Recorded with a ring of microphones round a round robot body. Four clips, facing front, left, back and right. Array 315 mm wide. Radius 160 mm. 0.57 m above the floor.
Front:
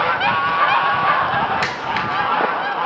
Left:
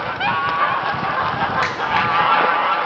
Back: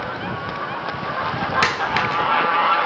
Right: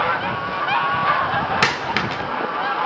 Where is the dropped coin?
120° right, 0.9 m.